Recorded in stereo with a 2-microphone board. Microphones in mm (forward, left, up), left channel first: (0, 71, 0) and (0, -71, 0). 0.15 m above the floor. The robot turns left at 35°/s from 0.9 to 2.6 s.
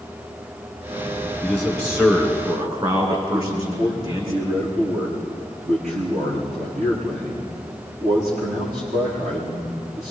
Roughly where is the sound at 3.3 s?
Right.